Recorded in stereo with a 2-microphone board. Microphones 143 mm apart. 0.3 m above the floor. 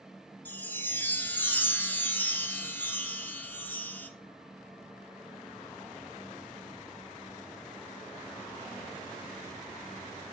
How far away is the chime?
About 0.5 m.